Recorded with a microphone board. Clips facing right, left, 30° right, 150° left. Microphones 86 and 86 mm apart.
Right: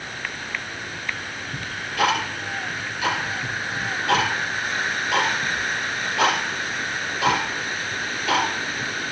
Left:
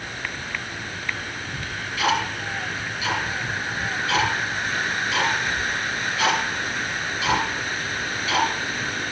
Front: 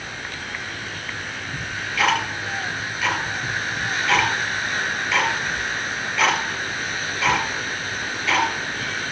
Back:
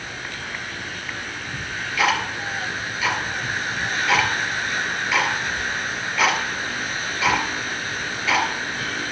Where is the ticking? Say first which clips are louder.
Right 6 dB, back 1 dB; 125° right, 4.5 m.